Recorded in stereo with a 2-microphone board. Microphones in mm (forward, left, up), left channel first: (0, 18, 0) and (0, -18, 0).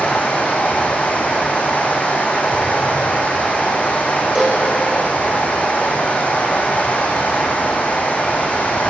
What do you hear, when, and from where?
0.0 s running water: 45° left (ahead or behind), 7 m
4.3 s a cowbell: 15° right (ahead or behind), 5.5 m